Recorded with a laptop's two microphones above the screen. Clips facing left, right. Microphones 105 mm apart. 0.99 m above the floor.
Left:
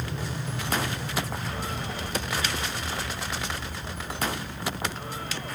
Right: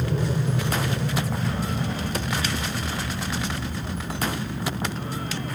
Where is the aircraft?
45° right (ahead or behind).